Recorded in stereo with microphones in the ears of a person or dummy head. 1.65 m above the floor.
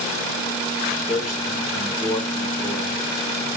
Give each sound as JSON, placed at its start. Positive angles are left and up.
{"t": 1.1, "sound": "a man speaking", "side_deg": 5, "distance_m": 4.5}